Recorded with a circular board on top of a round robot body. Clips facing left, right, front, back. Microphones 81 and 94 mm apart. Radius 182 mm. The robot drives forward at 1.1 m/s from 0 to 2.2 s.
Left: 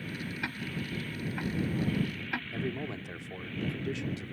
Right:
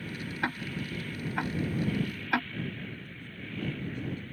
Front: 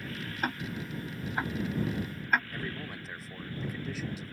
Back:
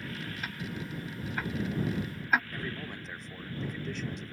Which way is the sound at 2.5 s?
85° left.